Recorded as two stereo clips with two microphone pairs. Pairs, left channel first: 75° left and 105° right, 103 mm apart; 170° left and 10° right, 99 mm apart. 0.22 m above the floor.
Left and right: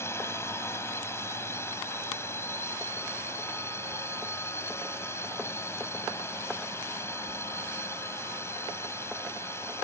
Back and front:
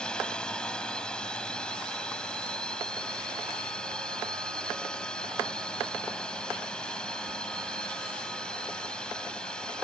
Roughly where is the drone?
Left.